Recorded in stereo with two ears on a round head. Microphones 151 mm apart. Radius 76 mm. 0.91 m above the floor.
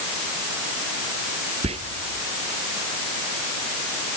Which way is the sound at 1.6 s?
35° right (ahead or behind).